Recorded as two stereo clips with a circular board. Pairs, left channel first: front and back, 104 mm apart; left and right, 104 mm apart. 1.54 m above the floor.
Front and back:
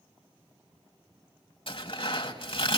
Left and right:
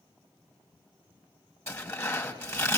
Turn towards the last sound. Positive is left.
turn(degrees=30)